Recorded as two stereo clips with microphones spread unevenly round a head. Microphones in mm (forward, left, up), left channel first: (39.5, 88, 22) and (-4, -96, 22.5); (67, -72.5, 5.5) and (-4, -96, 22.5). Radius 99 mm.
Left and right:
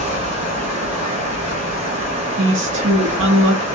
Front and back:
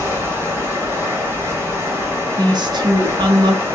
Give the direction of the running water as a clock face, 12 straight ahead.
5 o'clock.